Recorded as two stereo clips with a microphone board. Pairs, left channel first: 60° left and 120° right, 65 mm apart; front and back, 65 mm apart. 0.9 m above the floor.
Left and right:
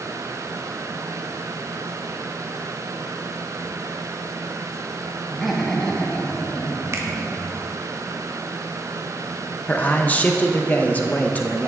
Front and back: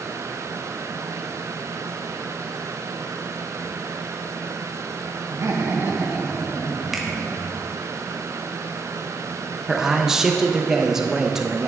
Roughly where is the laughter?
Behind left.